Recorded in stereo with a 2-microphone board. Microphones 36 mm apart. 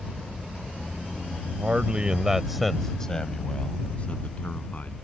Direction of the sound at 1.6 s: 40° right (ahead or behind).